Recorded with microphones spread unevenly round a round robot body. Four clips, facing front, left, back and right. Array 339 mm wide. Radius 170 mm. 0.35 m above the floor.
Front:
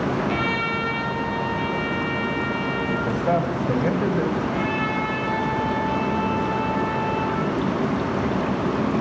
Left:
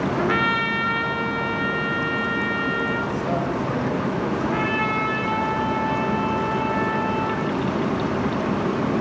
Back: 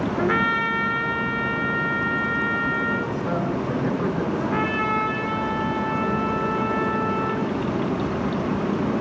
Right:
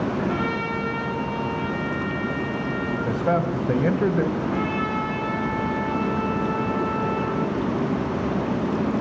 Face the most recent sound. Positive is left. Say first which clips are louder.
# left 2 dB, even
turn(degrees=150)